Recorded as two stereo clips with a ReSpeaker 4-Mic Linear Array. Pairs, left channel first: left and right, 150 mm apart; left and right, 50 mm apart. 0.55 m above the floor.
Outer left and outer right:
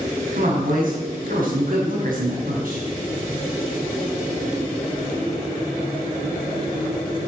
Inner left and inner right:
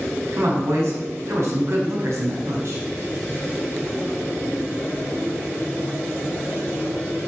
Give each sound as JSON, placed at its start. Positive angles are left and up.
{"t": 0.3, "sound": "a woman speaking", "side_deg": -65, "distance_m": 5.5}